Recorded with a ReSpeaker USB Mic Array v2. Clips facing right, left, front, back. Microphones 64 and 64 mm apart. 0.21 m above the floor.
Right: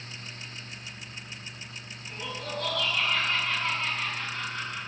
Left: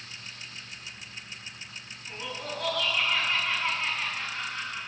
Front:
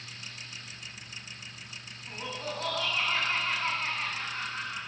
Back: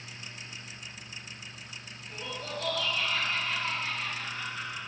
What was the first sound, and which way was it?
Laughter, 10° left.